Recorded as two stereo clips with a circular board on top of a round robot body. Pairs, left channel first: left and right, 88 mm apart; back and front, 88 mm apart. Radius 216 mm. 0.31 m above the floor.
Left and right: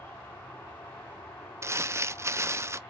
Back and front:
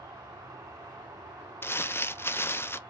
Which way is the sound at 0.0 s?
30° left.